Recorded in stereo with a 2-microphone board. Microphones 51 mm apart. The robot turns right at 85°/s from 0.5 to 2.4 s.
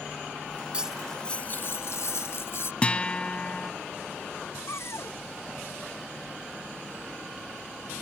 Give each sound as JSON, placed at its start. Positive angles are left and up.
{"t": 0.7, "sound": "cutlery clinking", "azimuth_deg": -20}
{"t": 2.8, "sound": "a guitar", "side_deg": 25}
{"t": 4.7, "sound": "a cupboard door", "side_deg": 65}